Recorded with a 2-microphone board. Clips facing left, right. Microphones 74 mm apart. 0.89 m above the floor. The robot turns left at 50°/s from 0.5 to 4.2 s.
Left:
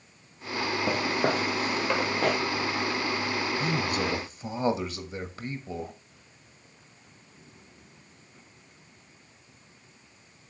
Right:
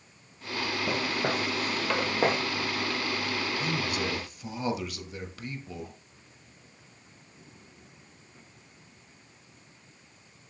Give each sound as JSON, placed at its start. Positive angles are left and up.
{"t": 0.9, "sound": "footsteps", "side_deg": 60, "distance_m": 2.5}
{"t": 3.6, "sound": "a man speaking", "azimuth_deg": 65, "distance_m": 1.2}